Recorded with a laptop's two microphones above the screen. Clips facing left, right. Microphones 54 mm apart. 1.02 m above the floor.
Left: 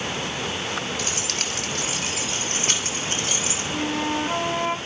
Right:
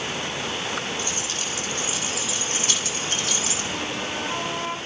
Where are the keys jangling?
85° left, 2 m; by 3.6 s 20° left (ahead or behind), 2.5 m.